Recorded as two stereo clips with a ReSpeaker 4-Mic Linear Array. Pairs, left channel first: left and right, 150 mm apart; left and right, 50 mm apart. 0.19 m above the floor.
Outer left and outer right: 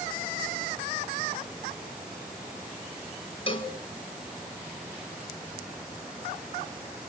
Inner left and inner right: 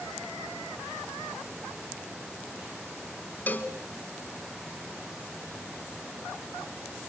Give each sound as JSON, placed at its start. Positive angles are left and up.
{"t": 3.5, "sound": "a cowbell", "side_deg": 35, "distance_m": 1.6}